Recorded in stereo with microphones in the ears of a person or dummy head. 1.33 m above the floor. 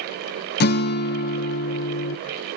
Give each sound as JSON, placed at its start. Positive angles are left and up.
{"t": 0.6, "sound": "a guitar", "side_deg": 60, "distance_m": 0.6}